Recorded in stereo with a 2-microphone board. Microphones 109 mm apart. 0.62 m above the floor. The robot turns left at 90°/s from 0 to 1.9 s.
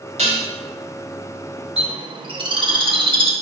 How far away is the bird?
About 0.7 m.